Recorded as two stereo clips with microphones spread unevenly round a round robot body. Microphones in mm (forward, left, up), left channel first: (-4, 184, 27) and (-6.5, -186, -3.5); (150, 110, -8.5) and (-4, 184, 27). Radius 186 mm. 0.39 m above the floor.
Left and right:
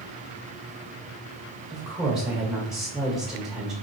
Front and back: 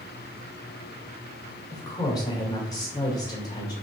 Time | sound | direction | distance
1.7 | a woman speaking | 10° right | 1.4 m